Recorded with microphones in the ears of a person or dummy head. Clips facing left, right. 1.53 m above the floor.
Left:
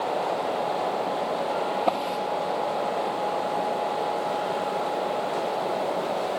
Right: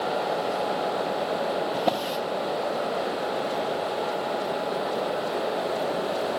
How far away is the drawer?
About 1.2 m.